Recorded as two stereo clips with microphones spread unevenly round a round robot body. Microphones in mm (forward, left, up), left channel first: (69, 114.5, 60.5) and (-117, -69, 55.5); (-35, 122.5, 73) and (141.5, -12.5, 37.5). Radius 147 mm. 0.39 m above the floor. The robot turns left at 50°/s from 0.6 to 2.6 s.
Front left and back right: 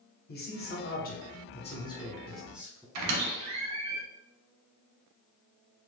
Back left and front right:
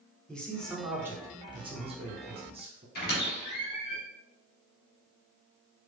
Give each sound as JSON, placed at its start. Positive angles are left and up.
{"t": 0.3, "sound": "a man speaking", "azimuth_deg": 45, "distance_m": 1.2}
{"t": 3.0, "sound": "a squeak", "azimuth_deg": -160, "distance_m": 1.2}